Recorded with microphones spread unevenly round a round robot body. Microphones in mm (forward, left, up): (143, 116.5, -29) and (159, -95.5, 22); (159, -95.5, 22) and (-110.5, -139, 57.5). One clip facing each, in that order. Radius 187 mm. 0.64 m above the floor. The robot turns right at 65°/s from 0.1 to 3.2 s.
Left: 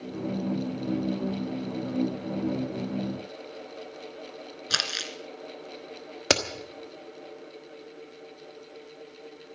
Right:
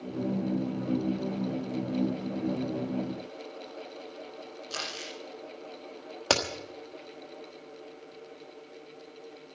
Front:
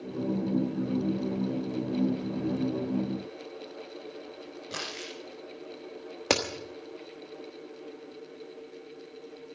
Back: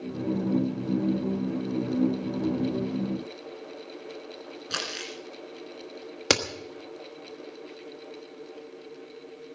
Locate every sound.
4.7 s crumpling: 115° left, 1.7 m
6.3 s a crack: 120° left, 1.2 m